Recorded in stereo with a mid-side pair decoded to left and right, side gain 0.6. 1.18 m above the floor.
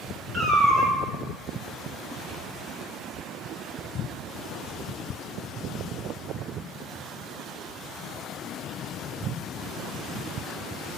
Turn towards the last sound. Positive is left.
turn(degrees=-45)